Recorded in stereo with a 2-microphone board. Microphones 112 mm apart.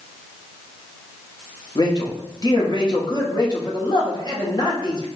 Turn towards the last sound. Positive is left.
turn(degrees=35)  # may be behind; listen again after turning